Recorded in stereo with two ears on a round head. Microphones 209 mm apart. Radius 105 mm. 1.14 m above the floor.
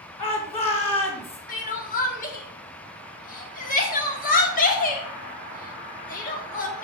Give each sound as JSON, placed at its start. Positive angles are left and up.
{"t": 0.2, "sound": "a shout", "side_deg": 25, "distance_m": 3.0}
{"t": 1.5, "sound": "crying", "side_deg": 35, "distance_m": 1.5}